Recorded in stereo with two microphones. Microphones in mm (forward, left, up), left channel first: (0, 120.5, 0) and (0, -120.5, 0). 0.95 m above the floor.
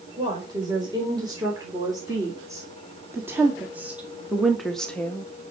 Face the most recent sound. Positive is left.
turn(degrees=10)  # may be behind; listen again after turning